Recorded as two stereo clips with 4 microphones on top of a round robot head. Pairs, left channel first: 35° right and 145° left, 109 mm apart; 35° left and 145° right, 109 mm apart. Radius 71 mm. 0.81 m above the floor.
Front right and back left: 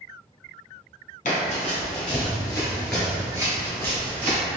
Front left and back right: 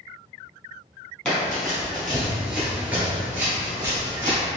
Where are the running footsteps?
45° right, 1.2 m; by 4.4 s 150° left, 1.1 m.